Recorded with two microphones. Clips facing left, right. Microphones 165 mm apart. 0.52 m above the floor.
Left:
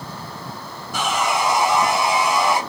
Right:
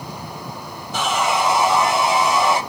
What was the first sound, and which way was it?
Sawing, 20° right (ahead or behind).